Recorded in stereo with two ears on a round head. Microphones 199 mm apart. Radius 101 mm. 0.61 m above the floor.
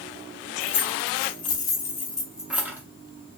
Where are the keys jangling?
25° left (ahead or behind), 1.0 m; by 2.8 s 10° right (ahead or behind), 0.8 m.